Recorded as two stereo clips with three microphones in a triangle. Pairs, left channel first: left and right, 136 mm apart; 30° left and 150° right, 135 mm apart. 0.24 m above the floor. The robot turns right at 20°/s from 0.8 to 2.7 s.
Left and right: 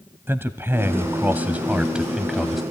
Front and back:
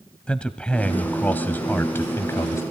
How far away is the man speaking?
About 1.1 m.